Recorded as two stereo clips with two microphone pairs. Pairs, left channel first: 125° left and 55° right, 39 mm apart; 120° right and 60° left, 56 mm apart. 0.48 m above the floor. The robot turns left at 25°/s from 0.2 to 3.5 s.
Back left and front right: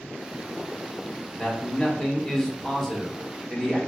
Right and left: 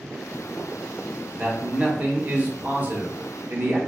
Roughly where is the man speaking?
Left.